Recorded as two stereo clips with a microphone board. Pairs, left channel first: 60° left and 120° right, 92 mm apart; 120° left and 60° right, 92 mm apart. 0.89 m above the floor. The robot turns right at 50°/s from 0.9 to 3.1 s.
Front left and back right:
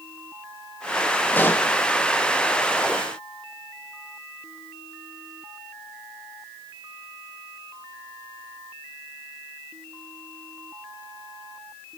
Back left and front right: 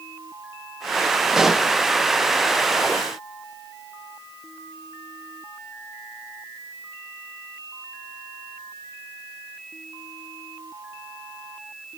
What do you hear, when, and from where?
1.3 s a pop: 15° left, 0.6 m; by 1.7 s 35° left, 0.6 m